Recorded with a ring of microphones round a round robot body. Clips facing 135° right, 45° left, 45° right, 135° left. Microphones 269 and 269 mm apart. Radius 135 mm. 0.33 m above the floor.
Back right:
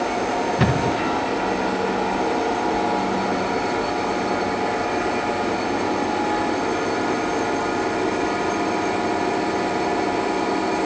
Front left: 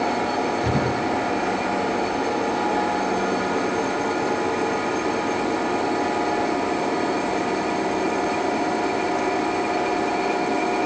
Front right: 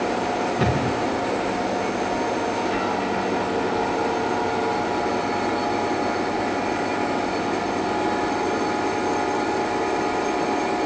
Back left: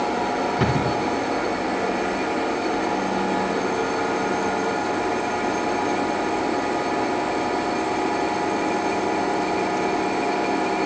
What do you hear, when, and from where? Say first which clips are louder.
0.6 s a thud: back right 2 dB, even; 140° right, 6.5 m